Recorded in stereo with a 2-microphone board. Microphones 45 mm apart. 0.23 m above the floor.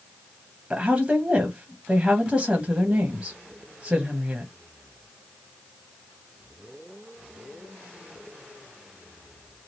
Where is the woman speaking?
25° right (ahead or behind), 1.0 m.